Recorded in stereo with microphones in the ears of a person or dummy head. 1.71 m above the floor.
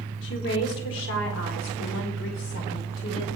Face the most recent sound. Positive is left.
turn(degrees=75)  # may be behind; listen again after turning